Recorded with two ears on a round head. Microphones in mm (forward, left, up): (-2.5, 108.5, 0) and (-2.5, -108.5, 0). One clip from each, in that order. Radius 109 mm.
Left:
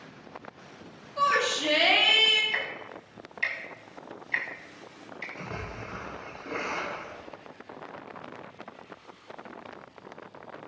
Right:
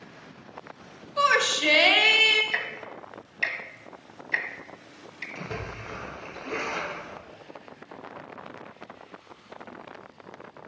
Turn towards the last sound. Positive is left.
turn(degrees=-90)